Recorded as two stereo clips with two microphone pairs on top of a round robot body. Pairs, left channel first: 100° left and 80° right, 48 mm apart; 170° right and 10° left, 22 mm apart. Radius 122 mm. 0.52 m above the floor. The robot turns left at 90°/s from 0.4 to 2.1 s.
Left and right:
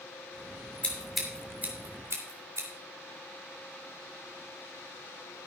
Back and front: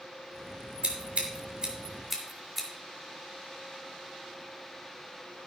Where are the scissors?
40° left, 3.5 m; by 2.7 s 75° right, 3.5 m.